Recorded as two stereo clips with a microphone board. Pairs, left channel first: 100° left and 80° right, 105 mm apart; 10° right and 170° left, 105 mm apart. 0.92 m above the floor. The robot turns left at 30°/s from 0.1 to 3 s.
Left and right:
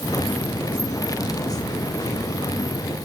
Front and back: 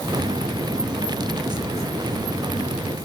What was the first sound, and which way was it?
Only background noise.